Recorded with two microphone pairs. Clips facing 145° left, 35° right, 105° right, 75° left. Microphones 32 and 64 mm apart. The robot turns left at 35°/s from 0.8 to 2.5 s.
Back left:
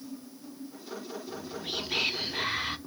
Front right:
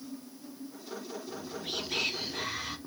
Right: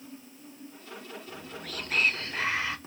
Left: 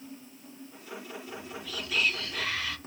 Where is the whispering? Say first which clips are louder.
Back left 2 dB, left 1 dB; 125° right, 0.6 m; by 2.8 s 170° right, 0.6 m.